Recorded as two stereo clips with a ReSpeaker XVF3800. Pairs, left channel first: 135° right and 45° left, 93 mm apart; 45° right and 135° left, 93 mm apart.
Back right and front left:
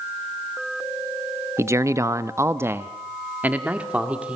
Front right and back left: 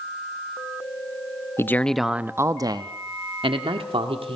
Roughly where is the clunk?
I don't hear a clunk.